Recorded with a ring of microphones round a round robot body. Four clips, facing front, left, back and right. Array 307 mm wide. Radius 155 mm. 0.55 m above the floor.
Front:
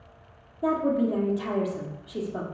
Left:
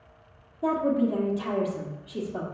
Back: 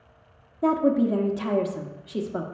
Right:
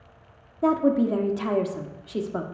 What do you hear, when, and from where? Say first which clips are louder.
0.6 s a woman speaking: right 3 dB, back 3 dB; 120° right, 1.3 m